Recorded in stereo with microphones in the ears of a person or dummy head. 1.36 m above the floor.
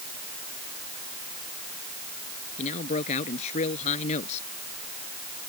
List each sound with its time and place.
2.6 s a man speaking: 40° left (ahead or behind)